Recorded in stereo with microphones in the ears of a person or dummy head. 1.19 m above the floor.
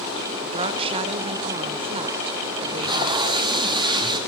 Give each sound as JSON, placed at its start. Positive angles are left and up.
{"t": 0.4, "sound": "a woman speaking", "side_deg": -30, "distance_m": 0.8}
{"t": 2.6, "sound": "tape being pulled", "side_deg": -20, "distance_m": 1.7}